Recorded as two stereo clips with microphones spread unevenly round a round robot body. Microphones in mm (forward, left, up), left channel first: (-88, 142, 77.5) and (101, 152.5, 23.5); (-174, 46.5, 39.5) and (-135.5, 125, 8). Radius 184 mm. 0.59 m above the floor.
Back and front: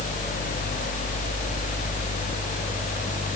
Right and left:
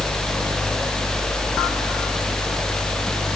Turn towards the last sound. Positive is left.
No sound to turn to.